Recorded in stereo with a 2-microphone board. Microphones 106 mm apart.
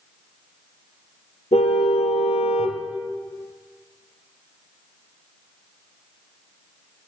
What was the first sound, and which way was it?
A car horn, 80° left.